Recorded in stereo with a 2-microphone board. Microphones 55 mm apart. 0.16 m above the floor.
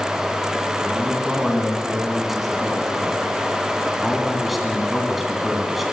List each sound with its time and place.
0.8 s a man speaking: 5° right (ahead or behind), 1.7 m